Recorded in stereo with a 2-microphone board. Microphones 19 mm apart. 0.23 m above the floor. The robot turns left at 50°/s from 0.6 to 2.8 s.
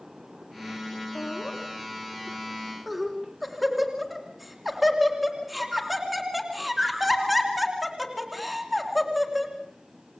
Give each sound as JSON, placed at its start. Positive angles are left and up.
{"t": 1.1, "sound": "laughter", "side_deg": 60, "distance_m": 3.0}